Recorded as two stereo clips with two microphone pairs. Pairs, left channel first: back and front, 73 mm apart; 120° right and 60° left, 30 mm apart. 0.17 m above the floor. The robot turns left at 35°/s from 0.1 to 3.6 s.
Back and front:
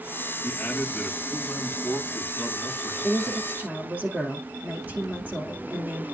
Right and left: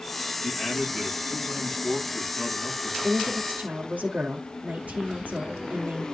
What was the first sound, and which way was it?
A man speaking, 135° left.